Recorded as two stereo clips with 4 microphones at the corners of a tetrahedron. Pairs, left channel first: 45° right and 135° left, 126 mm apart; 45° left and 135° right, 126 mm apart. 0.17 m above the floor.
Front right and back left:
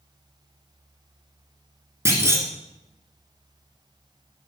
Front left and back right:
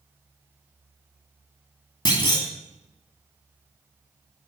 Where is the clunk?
80° left, 1.9 m.